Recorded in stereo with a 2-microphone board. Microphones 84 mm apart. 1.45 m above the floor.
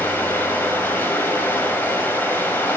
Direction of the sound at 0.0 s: 25° left (ahead or behind).